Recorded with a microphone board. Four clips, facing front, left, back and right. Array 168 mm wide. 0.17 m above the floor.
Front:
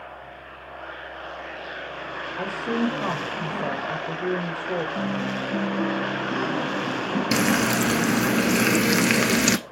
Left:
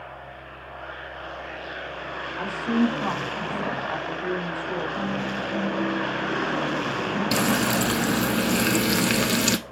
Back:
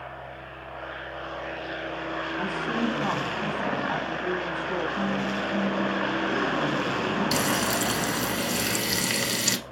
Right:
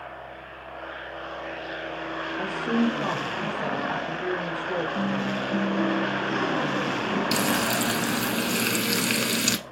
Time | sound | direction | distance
2.4 | a woman speaking | 30° right | 4 m
5.0 | a guitar | 50° right | 4.5 m
7.3 | frying | 20° left | 0.5 m